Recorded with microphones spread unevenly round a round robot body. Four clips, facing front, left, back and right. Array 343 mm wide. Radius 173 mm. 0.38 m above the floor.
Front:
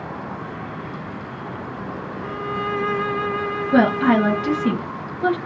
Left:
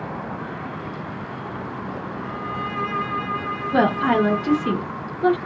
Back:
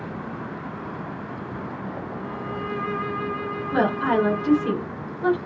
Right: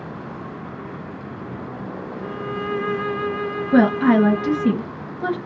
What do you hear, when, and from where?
2.2 s a violin: 65° right, 1.3 m
3.7 s a woman speaking: 60° right, 2.5 m